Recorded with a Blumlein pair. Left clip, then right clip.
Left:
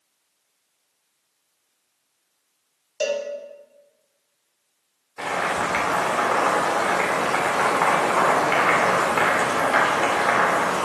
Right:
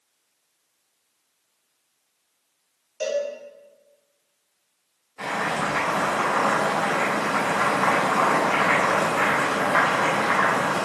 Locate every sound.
3.0 s a cowbell: 65° left, 2.0 m
5.2 s boiling: 25° left, 3.5 m